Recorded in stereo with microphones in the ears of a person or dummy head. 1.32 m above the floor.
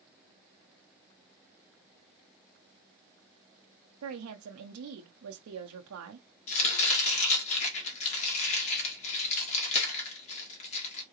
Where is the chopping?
35° left (ahead or behind), 1.8 m.